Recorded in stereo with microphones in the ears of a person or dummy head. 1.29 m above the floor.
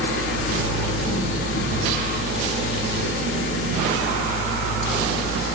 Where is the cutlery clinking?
I don't hear cutlery clinking.